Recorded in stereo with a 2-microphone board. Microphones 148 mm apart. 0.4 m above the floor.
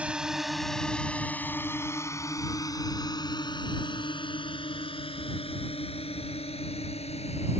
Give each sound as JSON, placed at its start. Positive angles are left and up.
{"t": 0.0, "sound": "a drone", "side_deg": -10}